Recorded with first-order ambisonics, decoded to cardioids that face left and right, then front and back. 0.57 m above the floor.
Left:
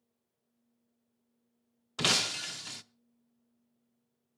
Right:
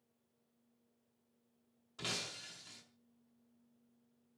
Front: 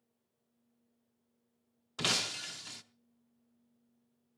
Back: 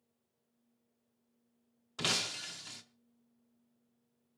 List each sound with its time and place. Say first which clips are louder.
2.0 s breaking glass: left 13 dB, front 1 dB; 80° left, 0.6 m